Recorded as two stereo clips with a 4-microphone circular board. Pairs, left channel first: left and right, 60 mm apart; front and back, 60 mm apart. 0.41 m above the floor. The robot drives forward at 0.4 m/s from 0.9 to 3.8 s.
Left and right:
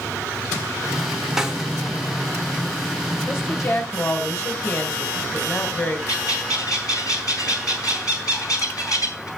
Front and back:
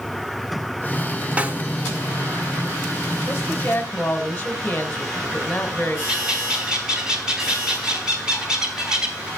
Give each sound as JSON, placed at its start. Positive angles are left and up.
{"t": 1.4, "sound": "a snare drum", "azimuth_deg": -160, "distance_m": 1.3}
{"t": 3.3, "sound": "a woman speaking", "azimuth_deg": 50, "distance_m": 2.0}
{"t": 6.1, "sound": "a bird", "azimuth_deg": 105, "distance_m": 3.5}